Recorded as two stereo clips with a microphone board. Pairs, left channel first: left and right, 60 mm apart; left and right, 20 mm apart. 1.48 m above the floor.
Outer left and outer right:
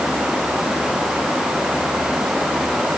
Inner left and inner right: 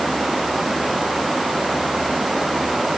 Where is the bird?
I don't hear a bird.